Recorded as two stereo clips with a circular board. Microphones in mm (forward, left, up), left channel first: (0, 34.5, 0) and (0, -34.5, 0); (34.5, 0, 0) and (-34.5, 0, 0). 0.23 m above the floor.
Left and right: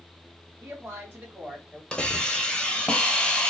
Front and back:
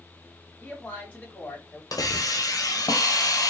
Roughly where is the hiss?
Ahead.